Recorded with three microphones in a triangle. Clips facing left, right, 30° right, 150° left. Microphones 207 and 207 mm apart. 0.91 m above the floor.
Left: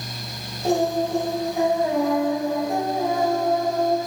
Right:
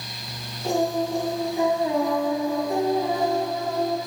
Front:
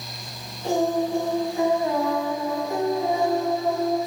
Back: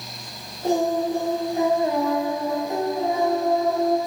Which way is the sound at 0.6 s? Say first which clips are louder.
Left 2 dB, back 1 dB; 110° left.